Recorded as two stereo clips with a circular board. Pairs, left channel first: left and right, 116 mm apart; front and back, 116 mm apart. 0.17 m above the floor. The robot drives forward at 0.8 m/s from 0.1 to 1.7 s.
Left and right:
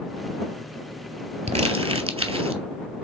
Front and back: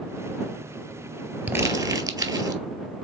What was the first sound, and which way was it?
Crumpling, 105° right.